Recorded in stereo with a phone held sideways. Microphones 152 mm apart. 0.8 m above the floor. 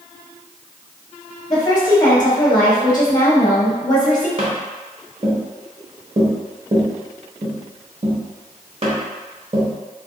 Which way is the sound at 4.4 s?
45° right (ahead or behind).